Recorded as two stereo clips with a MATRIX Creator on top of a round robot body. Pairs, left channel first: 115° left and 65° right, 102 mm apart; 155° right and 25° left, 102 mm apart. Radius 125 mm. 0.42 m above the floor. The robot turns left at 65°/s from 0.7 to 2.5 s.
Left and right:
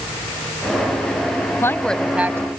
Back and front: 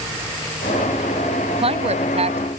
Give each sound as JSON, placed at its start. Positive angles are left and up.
{"t": 1.6, "sound": "a woman speaking", "azimuth_deg": 50}